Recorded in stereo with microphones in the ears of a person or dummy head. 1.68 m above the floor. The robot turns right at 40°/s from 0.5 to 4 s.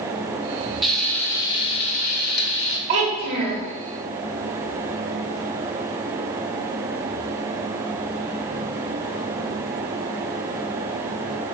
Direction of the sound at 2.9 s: 30° right (ahead or behind).